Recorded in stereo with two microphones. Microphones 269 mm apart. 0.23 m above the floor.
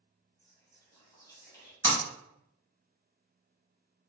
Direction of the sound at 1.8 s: 60° left (ahead or behind).